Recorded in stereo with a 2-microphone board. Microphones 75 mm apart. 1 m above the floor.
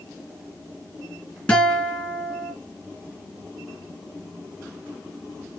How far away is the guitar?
About 2.5 m.